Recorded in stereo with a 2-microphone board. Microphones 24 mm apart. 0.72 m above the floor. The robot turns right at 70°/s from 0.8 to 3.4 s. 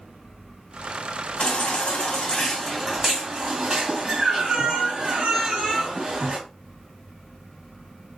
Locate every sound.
1.4 s a baby crying: 80° left, 1.6 m; by 6.4 s 140° right, 1.6 m